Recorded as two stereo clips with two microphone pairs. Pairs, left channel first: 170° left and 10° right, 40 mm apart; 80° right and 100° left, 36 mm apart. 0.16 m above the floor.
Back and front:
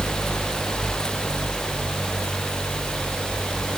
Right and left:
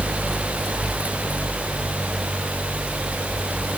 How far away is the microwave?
I don't hear a microwave.